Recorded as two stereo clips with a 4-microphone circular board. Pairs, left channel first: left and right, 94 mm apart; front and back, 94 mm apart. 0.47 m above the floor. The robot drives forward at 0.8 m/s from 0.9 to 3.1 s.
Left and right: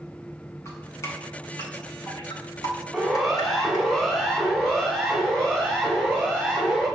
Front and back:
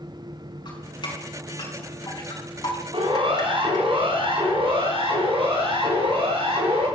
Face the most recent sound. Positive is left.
turn(degrees=170)